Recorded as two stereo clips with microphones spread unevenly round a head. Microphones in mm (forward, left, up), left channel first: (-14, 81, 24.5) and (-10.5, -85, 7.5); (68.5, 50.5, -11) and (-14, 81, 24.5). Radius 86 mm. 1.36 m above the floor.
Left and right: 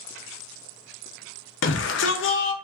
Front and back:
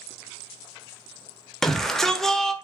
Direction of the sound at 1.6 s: 70° left.